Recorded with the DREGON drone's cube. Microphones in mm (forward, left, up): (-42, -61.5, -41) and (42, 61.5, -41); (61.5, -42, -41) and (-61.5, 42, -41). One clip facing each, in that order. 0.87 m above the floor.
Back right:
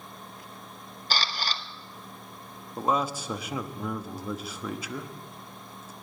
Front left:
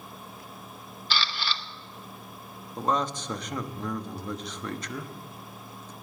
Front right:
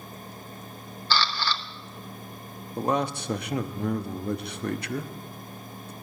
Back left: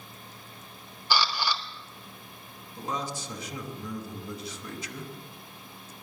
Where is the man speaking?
40° right, 1.0 m.